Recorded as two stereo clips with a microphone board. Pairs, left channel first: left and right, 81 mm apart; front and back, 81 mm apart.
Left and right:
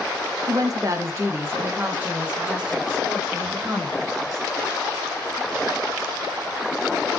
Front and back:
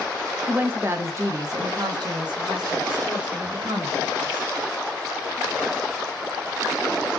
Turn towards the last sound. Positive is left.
turn(degrees=-175)